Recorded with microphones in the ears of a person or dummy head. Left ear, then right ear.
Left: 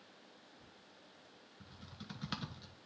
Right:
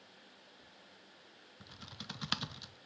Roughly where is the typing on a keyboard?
Right.